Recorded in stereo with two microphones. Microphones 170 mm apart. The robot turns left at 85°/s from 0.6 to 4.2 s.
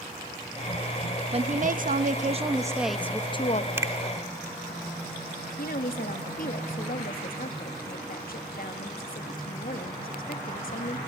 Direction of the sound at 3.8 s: 15° right (ahead or behind).